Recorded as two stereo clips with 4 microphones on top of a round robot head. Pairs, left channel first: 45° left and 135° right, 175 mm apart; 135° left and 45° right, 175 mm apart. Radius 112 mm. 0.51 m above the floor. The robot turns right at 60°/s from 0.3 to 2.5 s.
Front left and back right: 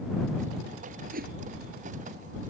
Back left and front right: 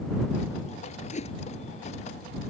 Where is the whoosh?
175° right; by 1.3 s 165° right.